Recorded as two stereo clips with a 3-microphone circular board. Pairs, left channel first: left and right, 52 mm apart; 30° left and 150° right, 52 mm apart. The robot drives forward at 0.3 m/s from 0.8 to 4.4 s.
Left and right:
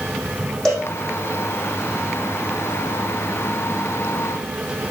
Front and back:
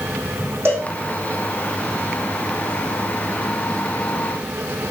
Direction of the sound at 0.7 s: 170° left.